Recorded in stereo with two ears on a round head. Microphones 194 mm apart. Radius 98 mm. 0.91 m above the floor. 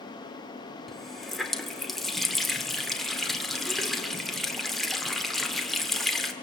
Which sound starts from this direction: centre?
A running tap, at 0.9 s.